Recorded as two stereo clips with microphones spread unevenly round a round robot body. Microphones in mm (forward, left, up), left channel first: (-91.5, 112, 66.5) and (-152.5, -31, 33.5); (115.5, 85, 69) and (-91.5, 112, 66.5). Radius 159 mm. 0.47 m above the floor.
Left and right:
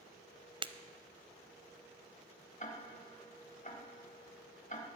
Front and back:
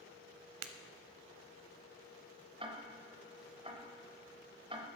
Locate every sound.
0.6 s breaking glass: 175° right, 0.7 m
2.6 s ticking: 110° left, 1.8 m